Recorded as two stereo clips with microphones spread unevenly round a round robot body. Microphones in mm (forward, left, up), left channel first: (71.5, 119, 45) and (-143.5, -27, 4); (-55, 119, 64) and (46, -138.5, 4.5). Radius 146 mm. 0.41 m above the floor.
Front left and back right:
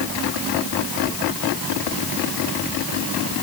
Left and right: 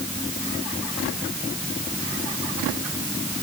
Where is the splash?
No splash in this recording.